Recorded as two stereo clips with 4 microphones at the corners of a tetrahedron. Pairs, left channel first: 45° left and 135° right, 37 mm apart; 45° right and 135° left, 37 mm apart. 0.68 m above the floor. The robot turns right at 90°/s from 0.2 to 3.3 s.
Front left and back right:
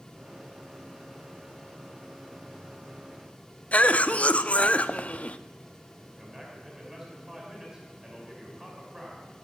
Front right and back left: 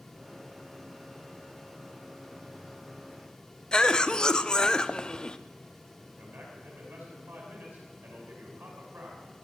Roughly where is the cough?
Ahead.